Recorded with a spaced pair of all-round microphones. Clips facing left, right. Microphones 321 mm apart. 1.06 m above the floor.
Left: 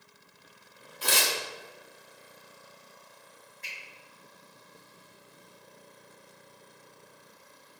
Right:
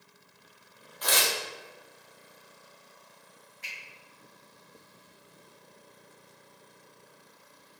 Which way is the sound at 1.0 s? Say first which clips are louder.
Even; 35° left (ahead or behind).